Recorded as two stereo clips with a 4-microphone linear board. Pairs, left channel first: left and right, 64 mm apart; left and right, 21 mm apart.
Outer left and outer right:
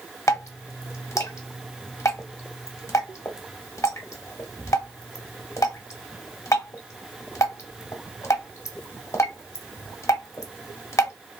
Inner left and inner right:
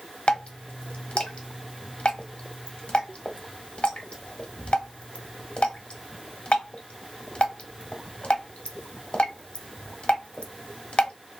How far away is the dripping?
About 0.8 m.